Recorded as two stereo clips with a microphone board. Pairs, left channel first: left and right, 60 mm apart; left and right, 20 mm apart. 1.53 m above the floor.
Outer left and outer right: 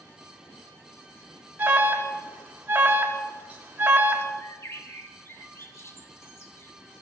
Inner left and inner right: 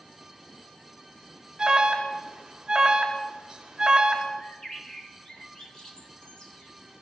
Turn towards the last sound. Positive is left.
turn(degrees=45)  # may be behind; listen again after turning